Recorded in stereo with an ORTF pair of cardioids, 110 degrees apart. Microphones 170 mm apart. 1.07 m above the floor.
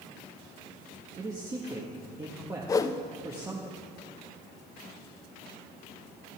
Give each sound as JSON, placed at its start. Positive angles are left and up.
{"t": 1.2, "sound": "a man speaking", "azimuth_deg": -20, "distance_m": 1.5}
{"t": 2.7, "sound": "a whoosh", "azimuth_deg": 20, "distance_m": 0.6}